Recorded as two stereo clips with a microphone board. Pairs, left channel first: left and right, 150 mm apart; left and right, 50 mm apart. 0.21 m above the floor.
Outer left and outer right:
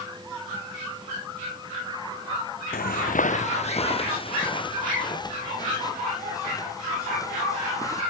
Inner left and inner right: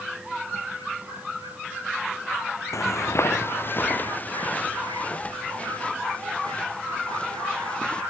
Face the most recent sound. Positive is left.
turn(degrees=20)  # may be behind; listen again after turning